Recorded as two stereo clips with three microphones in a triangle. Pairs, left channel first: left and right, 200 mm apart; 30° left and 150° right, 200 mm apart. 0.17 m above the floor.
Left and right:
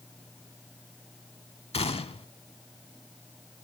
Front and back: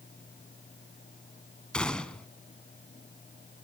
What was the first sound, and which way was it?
A gunshot, 110° left.